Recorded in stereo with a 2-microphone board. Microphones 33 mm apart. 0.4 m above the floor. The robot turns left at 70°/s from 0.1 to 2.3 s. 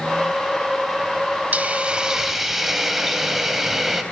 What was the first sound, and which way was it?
A hiss, 120° right.